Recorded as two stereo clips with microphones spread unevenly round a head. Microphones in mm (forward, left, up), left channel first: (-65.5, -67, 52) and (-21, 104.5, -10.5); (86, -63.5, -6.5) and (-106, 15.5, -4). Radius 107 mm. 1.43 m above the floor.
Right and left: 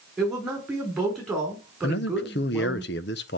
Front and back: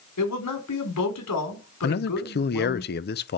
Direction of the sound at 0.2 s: 15° right.